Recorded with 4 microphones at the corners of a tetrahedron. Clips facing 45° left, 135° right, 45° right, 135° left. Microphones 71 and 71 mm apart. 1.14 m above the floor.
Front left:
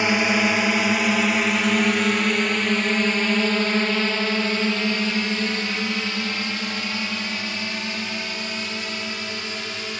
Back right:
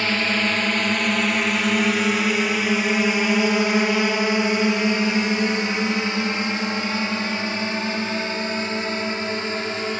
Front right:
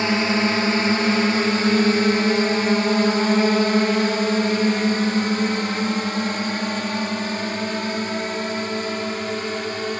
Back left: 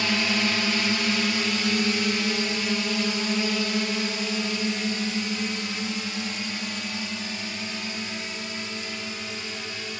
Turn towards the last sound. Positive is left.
turn(degrees=-80)